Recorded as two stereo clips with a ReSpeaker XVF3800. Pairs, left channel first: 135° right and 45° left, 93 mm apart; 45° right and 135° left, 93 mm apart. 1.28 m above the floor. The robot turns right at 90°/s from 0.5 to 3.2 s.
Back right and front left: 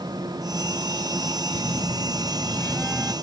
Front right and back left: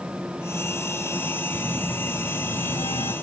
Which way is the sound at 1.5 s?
165° right.